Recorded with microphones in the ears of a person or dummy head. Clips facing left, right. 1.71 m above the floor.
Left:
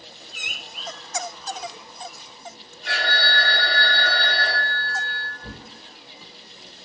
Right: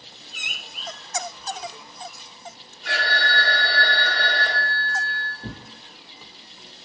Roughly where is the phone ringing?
Centre.